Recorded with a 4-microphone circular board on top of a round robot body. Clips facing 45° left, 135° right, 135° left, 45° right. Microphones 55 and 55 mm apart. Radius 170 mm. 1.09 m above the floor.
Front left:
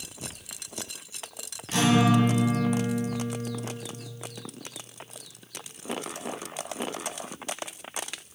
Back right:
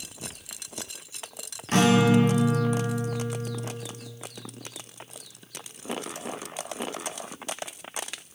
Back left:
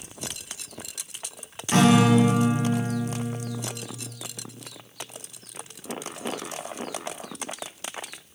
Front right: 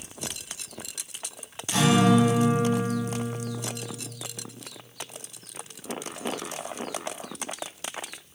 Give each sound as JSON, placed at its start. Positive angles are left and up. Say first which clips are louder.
{"t": 1.7, "sound": "a guitar", "louder": "back right 2 dB, back left 2 dB", "azimuth_deg": 180, "distance_m": 1.5}